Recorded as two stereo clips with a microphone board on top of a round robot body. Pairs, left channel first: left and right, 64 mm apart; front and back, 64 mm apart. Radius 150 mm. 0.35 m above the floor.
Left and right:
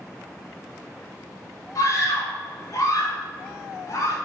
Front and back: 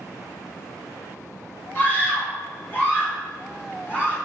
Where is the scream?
60° left, 3 m.